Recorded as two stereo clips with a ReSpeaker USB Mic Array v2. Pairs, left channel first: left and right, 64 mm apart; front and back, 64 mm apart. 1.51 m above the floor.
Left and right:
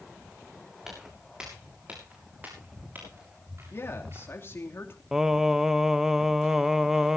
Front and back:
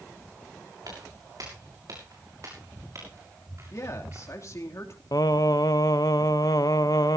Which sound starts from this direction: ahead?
Singing, at 5.1 s.